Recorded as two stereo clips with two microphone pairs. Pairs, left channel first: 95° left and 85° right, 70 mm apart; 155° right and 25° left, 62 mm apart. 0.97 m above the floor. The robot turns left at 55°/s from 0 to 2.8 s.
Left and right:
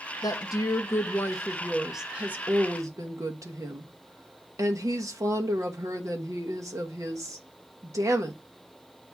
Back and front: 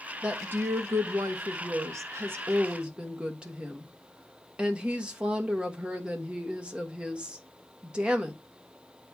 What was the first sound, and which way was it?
A woman speaking, 95° left.